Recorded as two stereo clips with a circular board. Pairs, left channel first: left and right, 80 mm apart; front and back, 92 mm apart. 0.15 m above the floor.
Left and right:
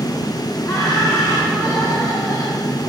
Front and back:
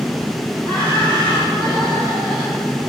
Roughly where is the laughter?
Left.